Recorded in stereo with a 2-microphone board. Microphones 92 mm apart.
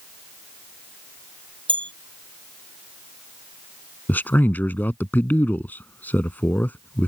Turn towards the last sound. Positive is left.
turn(degrees=20)  # may be behind; listen again after turning